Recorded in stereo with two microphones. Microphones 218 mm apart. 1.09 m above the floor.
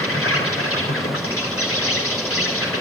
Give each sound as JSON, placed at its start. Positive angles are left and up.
{"t": 0.0, "sound": "an insect", "side_deg": 85, "distance_m": 3.0}